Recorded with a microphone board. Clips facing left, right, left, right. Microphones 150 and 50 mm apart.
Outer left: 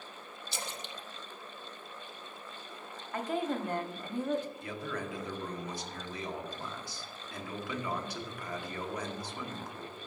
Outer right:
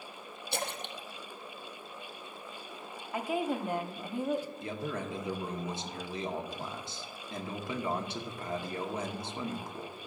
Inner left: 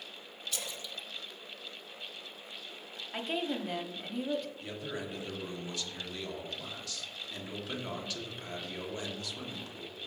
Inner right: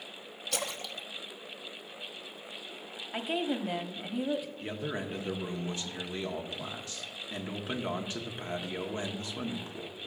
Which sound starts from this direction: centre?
A woman speaking, at 3.1 s.